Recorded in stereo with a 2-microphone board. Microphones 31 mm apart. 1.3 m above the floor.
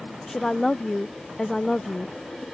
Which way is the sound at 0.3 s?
15° left (ahead or behind).